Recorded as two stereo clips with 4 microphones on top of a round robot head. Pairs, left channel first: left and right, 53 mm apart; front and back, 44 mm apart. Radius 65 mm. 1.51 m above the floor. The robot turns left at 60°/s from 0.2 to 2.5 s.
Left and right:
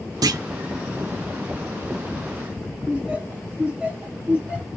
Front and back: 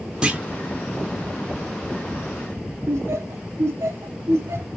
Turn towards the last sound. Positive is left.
turn(degrees=-160)